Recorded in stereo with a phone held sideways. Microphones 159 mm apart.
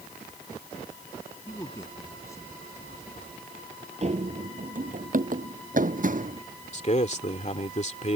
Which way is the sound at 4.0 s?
45° right (ahead or behind).